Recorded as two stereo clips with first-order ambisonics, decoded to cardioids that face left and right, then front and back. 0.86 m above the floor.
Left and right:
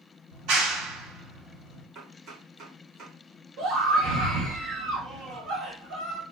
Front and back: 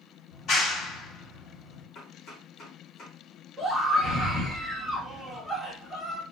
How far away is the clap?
About 3 m.